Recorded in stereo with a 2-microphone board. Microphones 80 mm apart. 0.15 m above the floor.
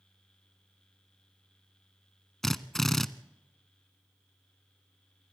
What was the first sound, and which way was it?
A drill, 5° left (ahead or behind).